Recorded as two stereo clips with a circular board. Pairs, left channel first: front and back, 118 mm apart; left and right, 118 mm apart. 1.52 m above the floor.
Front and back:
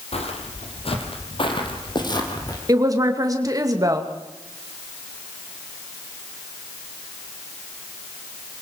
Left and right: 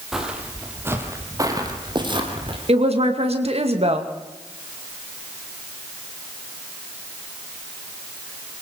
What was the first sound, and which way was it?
Footsteps, 5° right.